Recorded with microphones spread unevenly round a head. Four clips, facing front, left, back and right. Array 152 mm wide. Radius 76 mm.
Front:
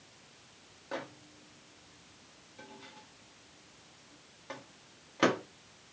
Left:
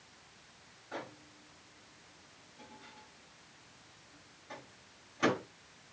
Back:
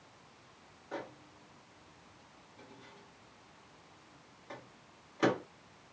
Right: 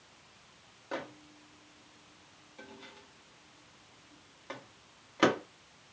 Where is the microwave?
50° right, 1.2 m.